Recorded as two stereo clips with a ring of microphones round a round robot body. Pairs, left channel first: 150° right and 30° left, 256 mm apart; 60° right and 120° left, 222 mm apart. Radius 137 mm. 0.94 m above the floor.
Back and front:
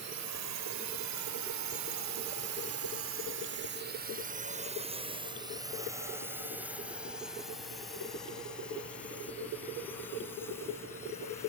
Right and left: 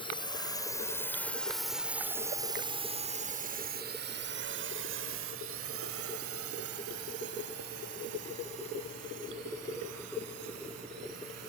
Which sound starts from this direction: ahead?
A drone, at 0.0 s.